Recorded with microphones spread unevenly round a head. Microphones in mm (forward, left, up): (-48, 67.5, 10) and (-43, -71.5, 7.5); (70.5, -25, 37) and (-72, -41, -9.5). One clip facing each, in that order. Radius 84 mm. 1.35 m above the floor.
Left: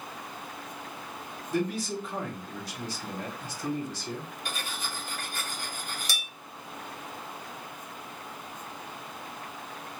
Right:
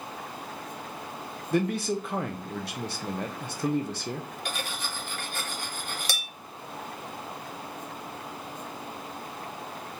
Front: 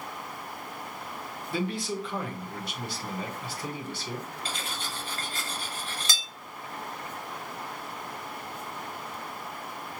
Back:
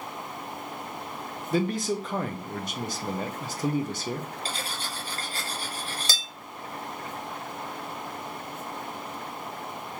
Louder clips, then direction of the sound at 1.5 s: Right 3 dB, back 5 dB; 125° right.